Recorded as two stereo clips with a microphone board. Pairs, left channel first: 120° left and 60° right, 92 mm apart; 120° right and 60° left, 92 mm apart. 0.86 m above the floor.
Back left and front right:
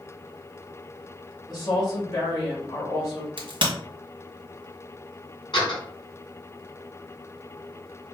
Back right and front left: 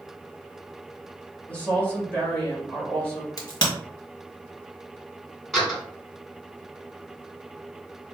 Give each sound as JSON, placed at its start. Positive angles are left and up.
{"t": 1.5, "sound": "a woman speaking", "azimuth_deg": 165, "distance_m": 2.0}
{"t": 3.4, "sound": "a crack", "azimuth_deg": -80, "distance_m": 1.5}
{"t": 5.5, "sound": "a door slam", "azimuth_deg": 150, "distance_m": 2.0}